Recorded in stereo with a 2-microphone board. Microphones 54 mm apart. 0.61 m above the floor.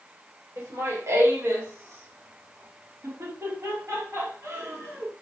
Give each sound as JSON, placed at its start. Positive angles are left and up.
{"t": 0.6, "sound": "laughter", "side_deg": -75, "distance_m": 3.5}